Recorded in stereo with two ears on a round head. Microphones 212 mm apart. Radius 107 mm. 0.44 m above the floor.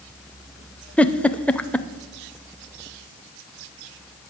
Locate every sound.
1.0 s a giggle: 5° left (ahead or behind), 0.5 m